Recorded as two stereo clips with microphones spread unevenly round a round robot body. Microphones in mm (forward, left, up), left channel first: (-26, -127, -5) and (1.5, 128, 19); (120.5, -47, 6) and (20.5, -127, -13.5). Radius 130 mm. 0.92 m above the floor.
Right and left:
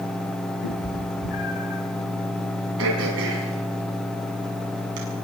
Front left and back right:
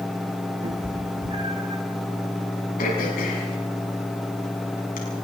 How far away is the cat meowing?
About 5.5 m.